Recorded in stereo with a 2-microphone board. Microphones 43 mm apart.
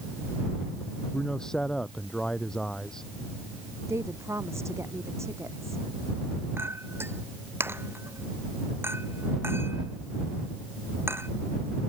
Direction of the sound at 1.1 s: 15° left (ahead or behind).